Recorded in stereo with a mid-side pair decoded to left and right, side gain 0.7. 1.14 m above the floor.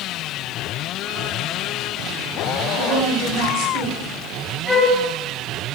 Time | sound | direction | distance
2.8 | a woman speaking | 65° right | 2.5 m
4.7 | a flute | straight ahead | 3.5 m